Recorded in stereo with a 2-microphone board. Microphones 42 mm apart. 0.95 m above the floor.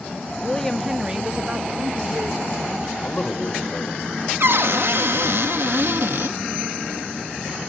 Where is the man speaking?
25° left (ahead or behind), 4.5 m.